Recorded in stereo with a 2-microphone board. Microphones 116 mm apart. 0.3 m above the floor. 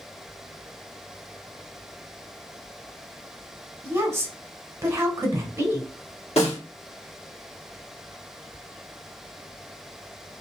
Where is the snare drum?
60° left (ahead or behind), 2.5 m.